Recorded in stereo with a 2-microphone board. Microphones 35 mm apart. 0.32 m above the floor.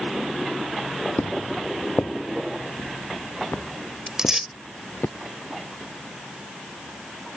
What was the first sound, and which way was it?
Footsteps, 75° left (ahead or behind).